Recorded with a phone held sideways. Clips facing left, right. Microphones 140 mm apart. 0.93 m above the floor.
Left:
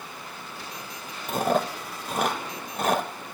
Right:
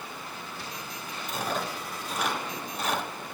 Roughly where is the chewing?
Left.